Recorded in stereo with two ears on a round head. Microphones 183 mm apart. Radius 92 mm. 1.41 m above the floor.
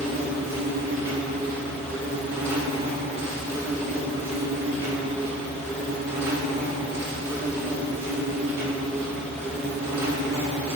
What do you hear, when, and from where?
0.0 s an insect: 15° right (ahead or behind), 2.5 m